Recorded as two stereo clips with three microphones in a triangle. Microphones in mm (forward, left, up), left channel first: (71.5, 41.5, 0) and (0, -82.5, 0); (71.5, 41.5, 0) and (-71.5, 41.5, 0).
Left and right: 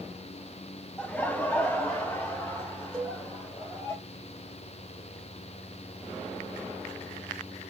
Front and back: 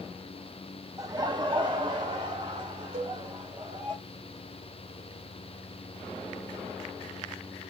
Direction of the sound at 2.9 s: 145° left.